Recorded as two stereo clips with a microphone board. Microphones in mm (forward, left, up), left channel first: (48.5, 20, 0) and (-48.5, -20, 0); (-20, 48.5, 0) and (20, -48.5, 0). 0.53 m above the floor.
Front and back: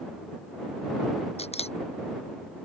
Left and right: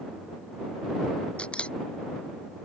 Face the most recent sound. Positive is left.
turn(degrees=30)